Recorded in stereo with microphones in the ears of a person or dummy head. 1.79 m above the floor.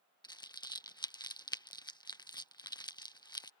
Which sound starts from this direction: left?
Crumpling, at 0.2 s.